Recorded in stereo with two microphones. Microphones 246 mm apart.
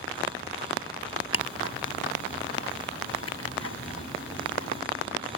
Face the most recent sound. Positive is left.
turn(degrees=75)  # may be behind; listen again after turning